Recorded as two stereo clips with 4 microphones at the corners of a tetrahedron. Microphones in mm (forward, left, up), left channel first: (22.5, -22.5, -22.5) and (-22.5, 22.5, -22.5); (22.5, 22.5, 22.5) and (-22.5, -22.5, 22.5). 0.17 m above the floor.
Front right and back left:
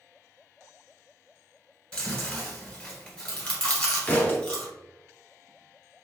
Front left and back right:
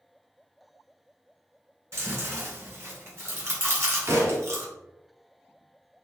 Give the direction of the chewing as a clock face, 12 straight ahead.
4 o'clock.